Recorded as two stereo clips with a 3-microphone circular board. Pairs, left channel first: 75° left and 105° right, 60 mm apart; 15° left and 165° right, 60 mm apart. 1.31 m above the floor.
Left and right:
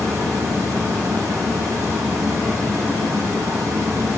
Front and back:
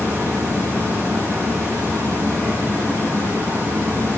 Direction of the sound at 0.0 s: 110° right.